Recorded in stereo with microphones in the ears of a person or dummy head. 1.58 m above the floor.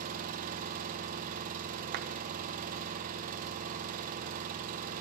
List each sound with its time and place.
0.0 s an engine running: 40° right (ahead or behind), 1.0 m
1.9 s a clap: 55° right (ahead or behind), 0.8 m